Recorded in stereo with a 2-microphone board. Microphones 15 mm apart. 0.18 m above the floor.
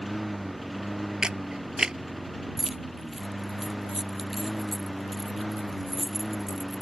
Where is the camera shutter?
65° right (ahead or behind).